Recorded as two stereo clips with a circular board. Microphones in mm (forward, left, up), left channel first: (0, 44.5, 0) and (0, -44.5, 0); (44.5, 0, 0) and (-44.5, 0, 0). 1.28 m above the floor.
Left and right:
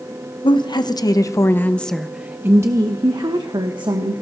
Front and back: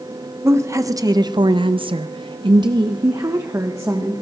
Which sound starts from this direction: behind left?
A woman speaking, at 0.4 s.